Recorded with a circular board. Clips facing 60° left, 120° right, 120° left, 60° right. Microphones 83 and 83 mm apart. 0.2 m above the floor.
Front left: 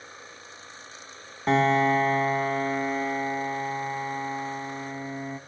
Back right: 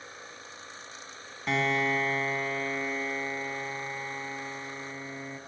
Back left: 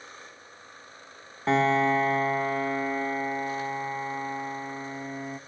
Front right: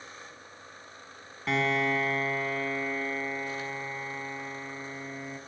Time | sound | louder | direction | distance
1.5 | a piano | front left 7 dB, back left 5 dB | 85° left | 1.0 m